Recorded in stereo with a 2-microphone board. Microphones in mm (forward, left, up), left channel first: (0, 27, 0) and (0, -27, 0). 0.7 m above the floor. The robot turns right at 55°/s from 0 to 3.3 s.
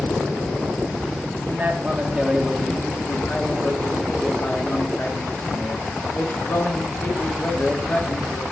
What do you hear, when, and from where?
1.5 s a man speaking: 60° right, 1.0 m; by 8.4 s 40° left, 1.0 m